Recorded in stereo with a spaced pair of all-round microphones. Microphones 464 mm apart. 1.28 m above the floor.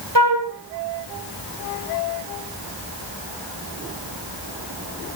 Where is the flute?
60° right (ahead or behind), 4 m.